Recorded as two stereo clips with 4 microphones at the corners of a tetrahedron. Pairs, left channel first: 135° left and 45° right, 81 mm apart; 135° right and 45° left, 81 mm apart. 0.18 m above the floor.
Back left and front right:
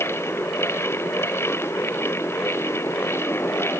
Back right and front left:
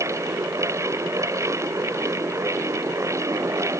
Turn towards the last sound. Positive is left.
No sound to turn to.